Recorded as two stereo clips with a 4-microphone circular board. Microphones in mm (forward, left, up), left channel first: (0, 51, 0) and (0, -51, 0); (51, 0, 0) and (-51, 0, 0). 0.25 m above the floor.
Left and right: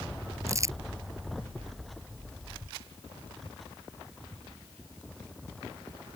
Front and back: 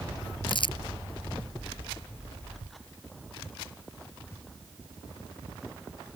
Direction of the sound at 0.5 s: 30° right.